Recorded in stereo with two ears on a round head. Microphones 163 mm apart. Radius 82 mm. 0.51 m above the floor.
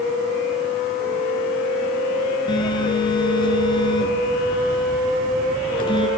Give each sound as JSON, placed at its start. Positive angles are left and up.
{"t": 2.5, "sound": "a phone buzzing", "side_deg": 30, "distance_m": 3.0}